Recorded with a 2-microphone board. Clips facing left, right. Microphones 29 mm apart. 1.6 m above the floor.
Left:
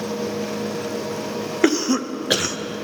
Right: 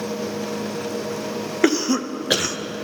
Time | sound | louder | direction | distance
1.6 | a cough | even | centre (ahead or behind) | 0.5 m